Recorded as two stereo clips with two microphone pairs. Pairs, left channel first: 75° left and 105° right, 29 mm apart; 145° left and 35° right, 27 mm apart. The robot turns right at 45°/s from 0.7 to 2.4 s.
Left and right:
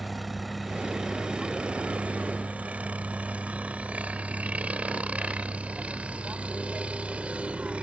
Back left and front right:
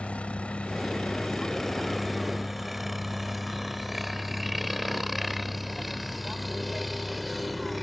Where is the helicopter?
160° left; by 7.8 s 130° right.